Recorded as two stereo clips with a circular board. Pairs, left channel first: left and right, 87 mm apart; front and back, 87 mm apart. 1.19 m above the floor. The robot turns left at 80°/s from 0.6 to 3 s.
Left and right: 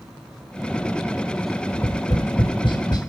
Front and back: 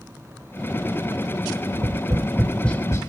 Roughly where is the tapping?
Behind left.